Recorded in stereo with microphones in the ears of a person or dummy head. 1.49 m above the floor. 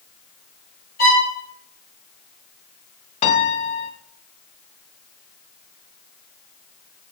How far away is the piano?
About 0.9 m.